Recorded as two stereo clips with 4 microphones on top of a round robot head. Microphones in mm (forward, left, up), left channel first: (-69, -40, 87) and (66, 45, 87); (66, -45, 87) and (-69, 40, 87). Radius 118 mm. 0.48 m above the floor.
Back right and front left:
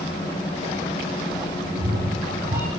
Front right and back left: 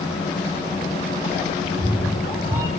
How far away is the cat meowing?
About 5 m.